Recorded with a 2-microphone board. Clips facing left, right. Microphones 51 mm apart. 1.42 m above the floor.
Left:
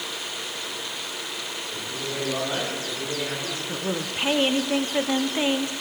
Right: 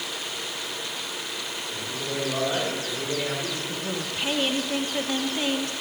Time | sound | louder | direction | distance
1.7 | a man speaking | right 1 dB | 5° left (ahead or behind) | 6 m
3.7 | a woman speaking | left 2 dB | 25° left (ahead or behind) | 0.8 m